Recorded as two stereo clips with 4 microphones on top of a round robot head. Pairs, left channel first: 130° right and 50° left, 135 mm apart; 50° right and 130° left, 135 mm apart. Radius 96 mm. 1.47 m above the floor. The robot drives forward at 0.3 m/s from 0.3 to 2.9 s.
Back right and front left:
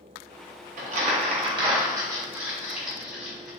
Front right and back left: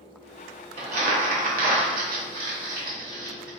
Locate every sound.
0.8 s crumpling: 85° left, 0.5 m; by 3.5 s 135° left, 0.8 m